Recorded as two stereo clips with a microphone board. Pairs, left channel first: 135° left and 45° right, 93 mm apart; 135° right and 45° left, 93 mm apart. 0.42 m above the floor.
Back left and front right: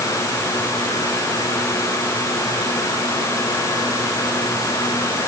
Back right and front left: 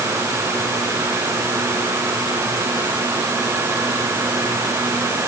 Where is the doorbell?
No doorbell in this recording.